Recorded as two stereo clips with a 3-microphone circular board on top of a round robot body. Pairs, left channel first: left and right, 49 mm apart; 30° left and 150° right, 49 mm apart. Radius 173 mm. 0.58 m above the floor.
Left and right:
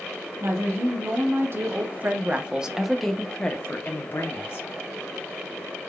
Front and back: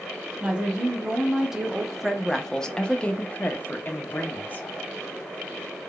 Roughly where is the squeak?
No squeak in this recording.